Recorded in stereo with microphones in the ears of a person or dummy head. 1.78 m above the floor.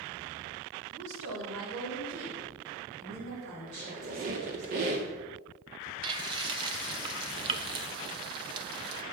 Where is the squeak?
45° right (ahead or behind), 1.7 m.